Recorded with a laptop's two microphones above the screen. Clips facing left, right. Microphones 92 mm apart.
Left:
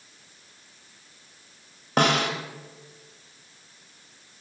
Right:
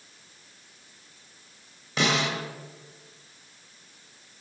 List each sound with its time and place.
2.0 s a snare drum: 55° left (ahead or behind), 1.4 m